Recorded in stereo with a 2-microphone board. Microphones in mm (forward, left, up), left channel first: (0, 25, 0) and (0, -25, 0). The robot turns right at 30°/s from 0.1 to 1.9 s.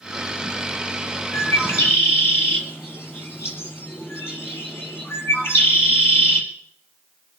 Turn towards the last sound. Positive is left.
turn(degrees=50)  # may be behind; listen again after turning